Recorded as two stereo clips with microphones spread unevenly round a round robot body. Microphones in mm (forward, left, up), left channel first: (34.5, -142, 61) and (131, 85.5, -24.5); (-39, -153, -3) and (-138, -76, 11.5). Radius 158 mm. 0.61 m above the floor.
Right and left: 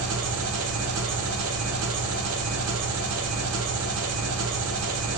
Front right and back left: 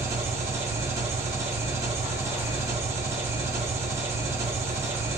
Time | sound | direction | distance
0.0 | an engine running | 75° left | 0.9 m